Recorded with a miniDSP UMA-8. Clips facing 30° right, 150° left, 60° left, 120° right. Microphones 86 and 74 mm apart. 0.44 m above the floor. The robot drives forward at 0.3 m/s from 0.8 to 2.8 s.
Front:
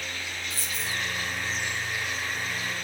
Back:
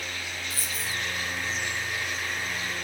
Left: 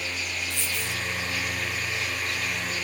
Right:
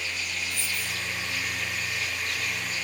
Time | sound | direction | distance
0.5 | a dropped coin | 60° left | 1.4 m